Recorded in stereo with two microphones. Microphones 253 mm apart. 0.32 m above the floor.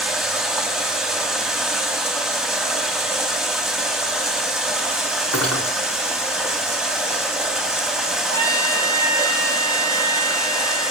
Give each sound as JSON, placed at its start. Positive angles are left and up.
{"t": 0.0, "sound": "running water", "side_deg": 0, "distance_m": 1.4}
{"t": 5.3, "sound": "cutlery clinking", "side_deg": 75, "distance_m": 2.5}
{"t": 8.3, "sound": "a trumpet", "side_deg": 30, "distance_m": 6.5}